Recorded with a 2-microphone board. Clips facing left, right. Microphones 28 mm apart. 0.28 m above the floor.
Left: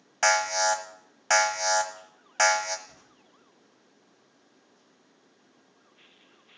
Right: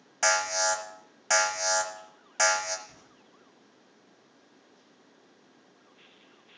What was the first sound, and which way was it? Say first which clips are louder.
An alarm: left 3 dB; 15° left (ahead or behind).